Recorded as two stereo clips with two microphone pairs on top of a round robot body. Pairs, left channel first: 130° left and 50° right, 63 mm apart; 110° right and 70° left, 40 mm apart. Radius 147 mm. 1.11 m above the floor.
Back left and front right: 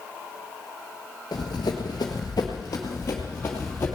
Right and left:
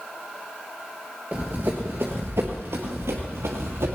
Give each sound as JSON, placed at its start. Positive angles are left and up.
{"t": 1.3, "sound": "running footsteps", "azimuth_deg": 135, "distance_m": 1.2}